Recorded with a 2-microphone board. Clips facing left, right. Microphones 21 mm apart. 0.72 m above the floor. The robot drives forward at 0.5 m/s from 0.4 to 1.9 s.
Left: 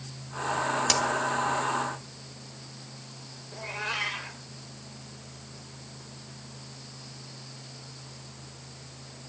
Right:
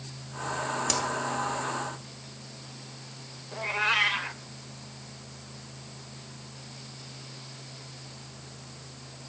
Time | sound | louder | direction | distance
0.9 | a crack | left 4 dB | 25° left (ahead or behind) | 3 m
3.5 | a cat meowing | right 7 dB | 35° right (ahead or behind) | 1.0 m